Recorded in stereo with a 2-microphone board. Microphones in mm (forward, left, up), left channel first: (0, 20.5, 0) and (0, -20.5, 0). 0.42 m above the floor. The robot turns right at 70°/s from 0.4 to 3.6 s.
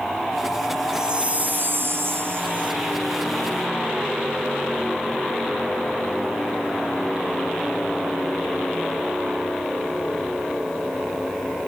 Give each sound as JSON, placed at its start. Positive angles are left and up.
{"t": 0.9, "sound": "a chime", "azimuth_deg": -165, "distance_m": 1.8}